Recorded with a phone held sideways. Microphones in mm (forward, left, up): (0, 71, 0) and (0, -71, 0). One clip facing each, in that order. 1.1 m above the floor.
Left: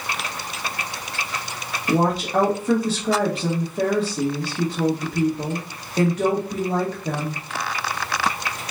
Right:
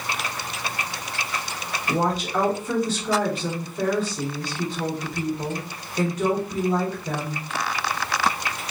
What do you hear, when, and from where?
1.9 s a woman speaking: 65° left (ahead or behind), 1.5 m